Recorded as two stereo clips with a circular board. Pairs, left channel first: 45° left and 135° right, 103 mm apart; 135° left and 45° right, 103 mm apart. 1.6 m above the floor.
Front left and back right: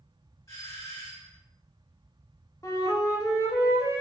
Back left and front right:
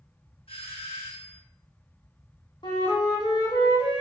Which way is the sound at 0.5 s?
105° left.